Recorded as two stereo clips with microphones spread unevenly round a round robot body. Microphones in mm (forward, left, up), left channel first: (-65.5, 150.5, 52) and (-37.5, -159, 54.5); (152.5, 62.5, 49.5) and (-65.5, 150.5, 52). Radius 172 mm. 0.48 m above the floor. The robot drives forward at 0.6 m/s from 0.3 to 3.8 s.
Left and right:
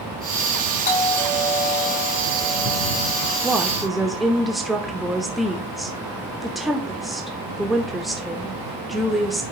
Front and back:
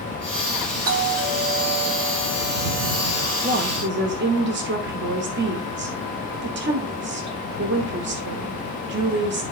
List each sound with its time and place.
0.8 s a doorbell: 160° left, 5.5 m; by 3.5 s 165° left, 6.5 m
3.4 s a woman speaking: 175° right, 0.9 m